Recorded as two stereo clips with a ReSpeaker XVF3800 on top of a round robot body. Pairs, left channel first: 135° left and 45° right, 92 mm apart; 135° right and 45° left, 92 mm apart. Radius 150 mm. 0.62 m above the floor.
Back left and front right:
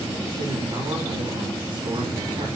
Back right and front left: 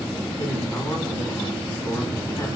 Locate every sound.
0.4 s a man speaking: 65° right, 1.7 m